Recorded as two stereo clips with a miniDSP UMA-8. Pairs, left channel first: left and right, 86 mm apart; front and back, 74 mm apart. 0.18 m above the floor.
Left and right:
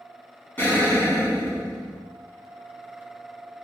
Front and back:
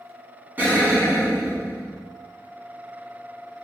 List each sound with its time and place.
0.6 s an explosion: 140° left, 1.1 m